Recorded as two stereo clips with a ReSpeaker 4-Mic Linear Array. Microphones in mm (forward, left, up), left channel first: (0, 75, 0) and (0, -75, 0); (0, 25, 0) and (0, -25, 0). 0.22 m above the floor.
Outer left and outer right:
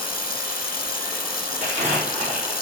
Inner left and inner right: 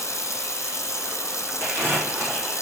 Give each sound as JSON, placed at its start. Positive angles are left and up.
{"t": 0.0, "sound": "running water", "side_deg": 80, "distance_m": 1.1}
{"t": 1.6, "sound": "crumpling", "side_deg": -50, "distance_m": 4.0}